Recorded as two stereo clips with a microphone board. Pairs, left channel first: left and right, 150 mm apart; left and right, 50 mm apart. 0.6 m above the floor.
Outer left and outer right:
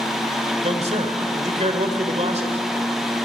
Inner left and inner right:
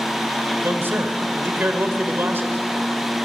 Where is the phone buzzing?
I don't hear a phone buzzing.